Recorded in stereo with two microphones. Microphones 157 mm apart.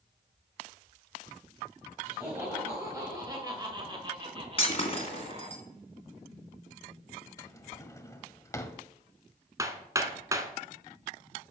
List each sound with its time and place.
2.0 s laughter: 15° right (ahead or behind), 3 m; by 5.6 s 45° right (ahead or behind), 2.0 m
4.6 s breaking glass: 40° left (ahead or behind), 2 m
7.4 s a drawer: 20° left (ahead or behind), 1.0 m
9.6 s hammering: 20° right (ahead or behind), 1.2 m